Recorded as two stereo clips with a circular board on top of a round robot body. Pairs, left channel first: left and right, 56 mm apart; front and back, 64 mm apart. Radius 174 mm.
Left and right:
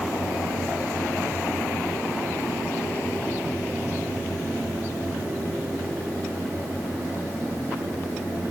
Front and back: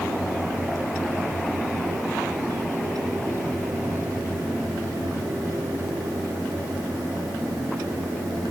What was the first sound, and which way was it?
Only background noise.